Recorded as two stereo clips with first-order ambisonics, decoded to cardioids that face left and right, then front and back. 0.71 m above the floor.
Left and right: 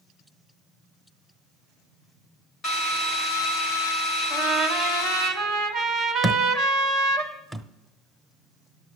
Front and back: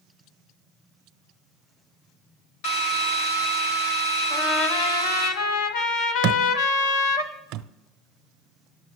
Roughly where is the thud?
Behind.